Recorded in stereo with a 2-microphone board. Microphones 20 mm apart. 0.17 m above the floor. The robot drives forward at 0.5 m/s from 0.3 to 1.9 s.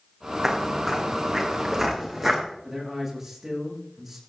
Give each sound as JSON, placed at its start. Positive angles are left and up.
{"t": 0.4, "sound": "footsteps", "side_deg": -15, "distance_m": 4.5}
{"t": 2.6, "sound": "a man speaking", "side_deg": -5, "distance_m": 9.5}